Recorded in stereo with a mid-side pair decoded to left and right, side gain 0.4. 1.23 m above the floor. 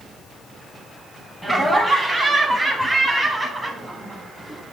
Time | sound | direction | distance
1.4 | laughter | 5° right | 9.5 m